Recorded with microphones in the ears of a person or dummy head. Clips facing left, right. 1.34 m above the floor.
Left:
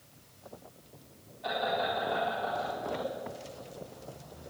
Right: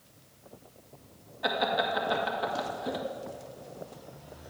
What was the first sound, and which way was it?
Laughter, 85° right.